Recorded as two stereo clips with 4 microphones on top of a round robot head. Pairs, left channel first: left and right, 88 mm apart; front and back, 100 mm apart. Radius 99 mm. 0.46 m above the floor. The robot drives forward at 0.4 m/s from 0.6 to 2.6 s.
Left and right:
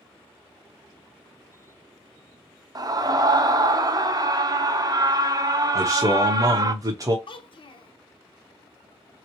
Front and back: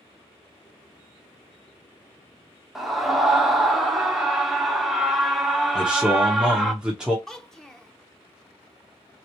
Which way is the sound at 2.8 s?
90° right.